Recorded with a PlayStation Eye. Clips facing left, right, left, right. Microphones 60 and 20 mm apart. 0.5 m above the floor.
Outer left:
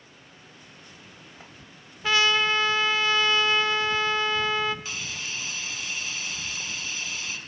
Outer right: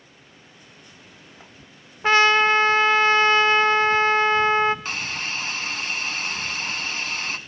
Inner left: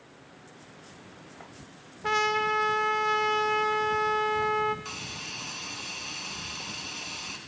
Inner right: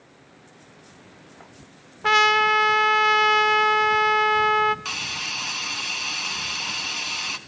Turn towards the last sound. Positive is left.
turn(degrees=-50)  # may be behind; listen again after turning